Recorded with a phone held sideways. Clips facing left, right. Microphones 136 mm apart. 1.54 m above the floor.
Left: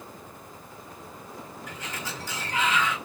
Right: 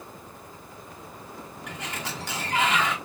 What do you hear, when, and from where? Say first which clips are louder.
1.7 s a sliding door: right 3 dB; 75° right (ahead or behind), 2 m